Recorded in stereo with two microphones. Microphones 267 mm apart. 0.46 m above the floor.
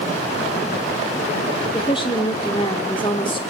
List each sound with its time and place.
1.7 s a woman speaking: 20° left (ahead or behind), 0.7 m